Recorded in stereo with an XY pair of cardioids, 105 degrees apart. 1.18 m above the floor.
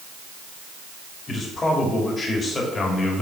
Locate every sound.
1.3 s a man speaking: 30° left, 3 m